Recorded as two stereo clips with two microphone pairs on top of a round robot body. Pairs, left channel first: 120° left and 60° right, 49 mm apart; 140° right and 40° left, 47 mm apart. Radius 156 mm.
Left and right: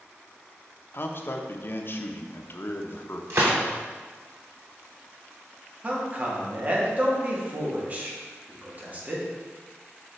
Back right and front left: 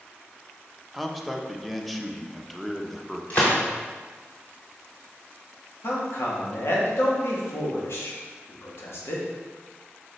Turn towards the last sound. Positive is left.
turn(degrees=-115)